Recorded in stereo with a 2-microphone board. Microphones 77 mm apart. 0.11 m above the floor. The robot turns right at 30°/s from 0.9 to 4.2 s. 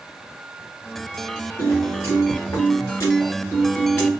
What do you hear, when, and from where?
1.6 s a piano: 65° left, 2 m; by 4.1 s 140° left, 2 m